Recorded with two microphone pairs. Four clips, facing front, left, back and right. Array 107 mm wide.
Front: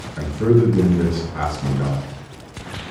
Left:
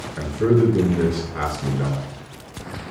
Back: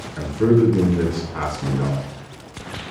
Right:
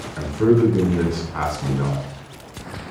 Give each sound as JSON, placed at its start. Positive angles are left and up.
{"t": 0.2, "sound": "a man speaking", "azimuth_deg": -105, "distance_m": 5.0}